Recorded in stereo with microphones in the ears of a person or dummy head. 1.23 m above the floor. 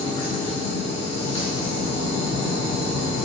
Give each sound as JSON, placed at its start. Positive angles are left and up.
{"t": 0.0, "sound": "a machine running", "side_deg": 30, "distance_m": 0.7}